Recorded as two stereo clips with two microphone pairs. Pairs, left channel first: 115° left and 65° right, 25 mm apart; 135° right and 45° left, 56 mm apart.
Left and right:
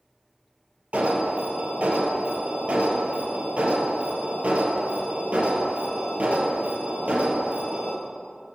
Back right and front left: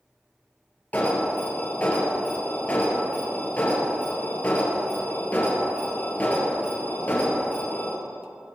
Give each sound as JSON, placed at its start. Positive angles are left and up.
{"t": 0.9, "sound": "an alarm", "azimuth_deg": -75, "distance_m": 2.5}